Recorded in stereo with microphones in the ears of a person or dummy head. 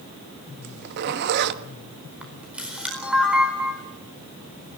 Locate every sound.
0.6 s a zipper: 60° right (ahead or behind), 1.3 m
2.2 s a camera shutter: 10° right (ahead or behind), 4.5 m